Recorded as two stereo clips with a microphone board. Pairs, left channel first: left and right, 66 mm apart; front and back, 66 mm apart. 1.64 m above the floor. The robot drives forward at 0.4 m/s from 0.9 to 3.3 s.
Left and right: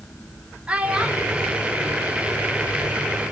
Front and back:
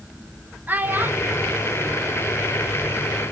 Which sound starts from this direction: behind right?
A child speaking, at 0.7 s.